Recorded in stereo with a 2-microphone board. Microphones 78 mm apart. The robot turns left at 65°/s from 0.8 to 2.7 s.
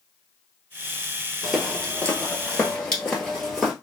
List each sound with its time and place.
1.4 s footsteps: 5° right (ahead or behind), 1.6 m; by 3.7 s centre (ahead or behind), 1.6 m